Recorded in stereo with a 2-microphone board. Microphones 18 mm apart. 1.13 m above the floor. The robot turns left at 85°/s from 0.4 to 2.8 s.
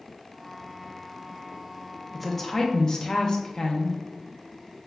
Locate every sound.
2.1 s a woman speaking: straight behind, 0.6 m; by 4.0 s 120° left, 0.6 m